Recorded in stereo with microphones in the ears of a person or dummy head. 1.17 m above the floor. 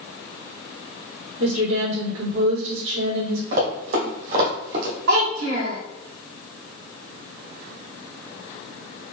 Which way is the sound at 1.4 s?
55° right (ahead or behind).